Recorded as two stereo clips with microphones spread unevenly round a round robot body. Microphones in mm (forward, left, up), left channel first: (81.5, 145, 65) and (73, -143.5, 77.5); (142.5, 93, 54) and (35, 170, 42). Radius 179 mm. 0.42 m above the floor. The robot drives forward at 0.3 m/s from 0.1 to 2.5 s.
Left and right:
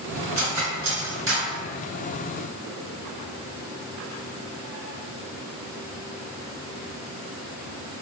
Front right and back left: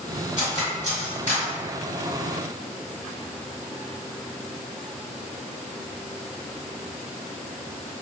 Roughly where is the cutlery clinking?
Behind right.